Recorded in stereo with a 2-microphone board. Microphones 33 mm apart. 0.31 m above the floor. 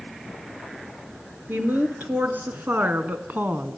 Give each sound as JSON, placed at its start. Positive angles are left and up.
{"t": 1.5, "sound": "a woman speaking", "side_deg": -75, "distance_m": 4.0}